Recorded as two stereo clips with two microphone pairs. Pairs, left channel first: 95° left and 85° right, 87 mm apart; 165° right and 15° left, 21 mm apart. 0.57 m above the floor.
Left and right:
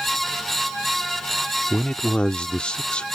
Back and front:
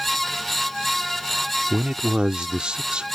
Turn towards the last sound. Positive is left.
turn(degrees=20)